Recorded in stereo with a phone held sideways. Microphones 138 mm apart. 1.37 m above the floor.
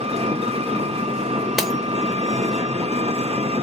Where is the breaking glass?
Centre (ahead or behind), 0.7 m.